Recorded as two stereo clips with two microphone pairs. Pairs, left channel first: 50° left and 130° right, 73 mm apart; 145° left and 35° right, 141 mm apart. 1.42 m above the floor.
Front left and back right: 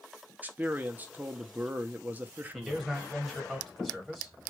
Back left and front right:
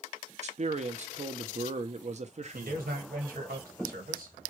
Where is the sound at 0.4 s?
65° right, 0.6 m.